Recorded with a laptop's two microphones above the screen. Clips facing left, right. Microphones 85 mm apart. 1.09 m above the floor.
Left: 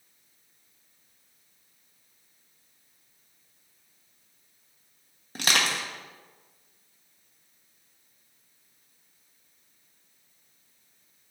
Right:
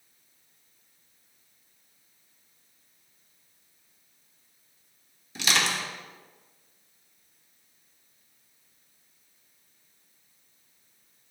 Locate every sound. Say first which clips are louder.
5.3 s crushing: even; 50° left (ahead or behind), 1.1 m